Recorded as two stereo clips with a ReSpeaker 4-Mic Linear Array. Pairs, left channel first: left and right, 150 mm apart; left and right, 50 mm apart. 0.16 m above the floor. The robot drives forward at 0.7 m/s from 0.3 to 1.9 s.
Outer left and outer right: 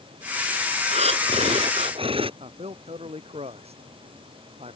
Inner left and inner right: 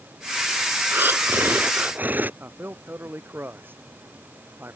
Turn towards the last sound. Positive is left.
turn(degrees=-45)  # may be behind; listen again after turning